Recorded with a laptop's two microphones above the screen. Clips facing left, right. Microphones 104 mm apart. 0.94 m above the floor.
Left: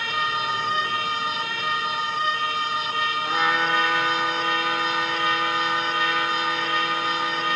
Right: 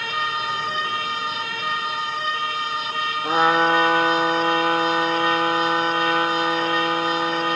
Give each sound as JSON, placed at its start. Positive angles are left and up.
{"t": 3.2, "sound": "a trumpet", "side_deg": -45}